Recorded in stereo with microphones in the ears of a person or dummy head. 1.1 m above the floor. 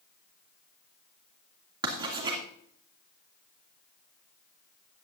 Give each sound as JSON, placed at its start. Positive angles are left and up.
{"t": 1.8, "sound": "writing", "side_deg": -25, "distance_m": 2.5}